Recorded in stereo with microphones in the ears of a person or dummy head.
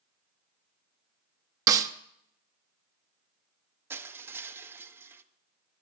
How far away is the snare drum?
About 0.8 m.